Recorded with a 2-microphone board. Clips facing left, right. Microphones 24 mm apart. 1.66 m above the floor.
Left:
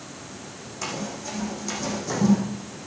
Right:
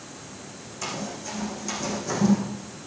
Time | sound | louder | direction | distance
0.8 | running footsteps | left 1 dB | 20° left (ahead or behind) | 6.5 m